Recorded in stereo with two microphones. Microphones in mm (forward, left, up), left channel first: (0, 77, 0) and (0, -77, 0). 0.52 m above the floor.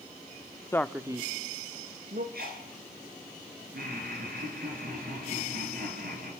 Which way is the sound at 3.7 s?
75° right (ahead or behind).